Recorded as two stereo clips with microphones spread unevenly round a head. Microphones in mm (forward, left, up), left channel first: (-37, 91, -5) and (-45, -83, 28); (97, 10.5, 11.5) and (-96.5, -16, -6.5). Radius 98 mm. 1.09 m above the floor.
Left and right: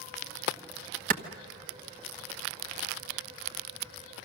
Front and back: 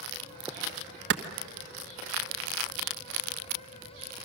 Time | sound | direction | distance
1.1 | a clap | 135° right | 1.1 m